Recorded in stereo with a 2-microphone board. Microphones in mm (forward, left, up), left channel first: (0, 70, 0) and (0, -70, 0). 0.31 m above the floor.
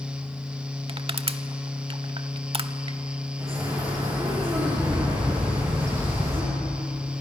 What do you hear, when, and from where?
0.9 s crushing: 40° right (ahead or behind), 0.7 m
3.4 s a bird: 25° right (ahead or behind), 7.5 m